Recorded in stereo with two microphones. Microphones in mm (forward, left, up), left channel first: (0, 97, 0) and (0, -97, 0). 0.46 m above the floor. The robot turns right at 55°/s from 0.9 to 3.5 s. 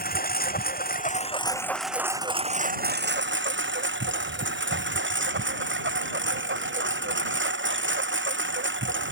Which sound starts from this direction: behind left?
A lawn mower, at 0.0 s.